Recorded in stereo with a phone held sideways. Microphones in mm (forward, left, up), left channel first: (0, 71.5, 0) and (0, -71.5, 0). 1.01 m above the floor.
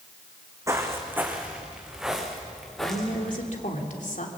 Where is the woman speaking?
65° left (ahead or behind), 3 m.